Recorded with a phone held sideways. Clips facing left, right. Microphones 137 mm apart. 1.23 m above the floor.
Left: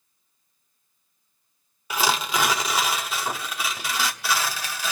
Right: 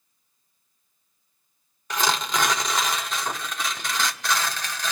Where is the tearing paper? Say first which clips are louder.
Left 1 dB; 5° left (ahead or behind), 1.3 m.